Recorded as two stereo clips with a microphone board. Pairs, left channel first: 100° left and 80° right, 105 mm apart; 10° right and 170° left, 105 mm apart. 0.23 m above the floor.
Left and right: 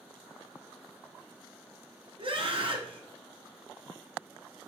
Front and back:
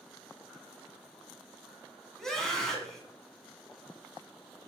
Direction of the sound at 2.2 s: 95° right.